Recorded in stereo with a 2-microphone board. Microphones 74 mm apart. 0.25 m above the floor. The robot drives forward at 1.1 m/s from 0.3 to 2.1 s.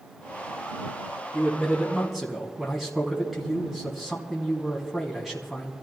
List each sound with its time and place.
1.3 s a man speaking: 5° right (ahead or behind), 3 m